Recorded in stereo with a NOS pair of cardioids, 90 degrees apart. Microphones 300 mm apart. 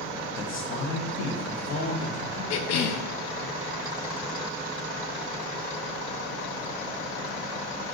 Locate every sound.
0.4 s a man speaking: 40° left, 0.8 m; by 2.4 s 65° left, 1.8 m
2.5 s a cough: 65° left, 0.6 m